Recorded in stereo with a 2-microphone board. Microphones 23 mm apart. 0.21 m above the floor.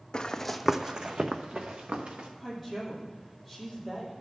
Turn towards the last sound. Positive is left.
turn(degrees=-15)  # may be behind; listen again after turning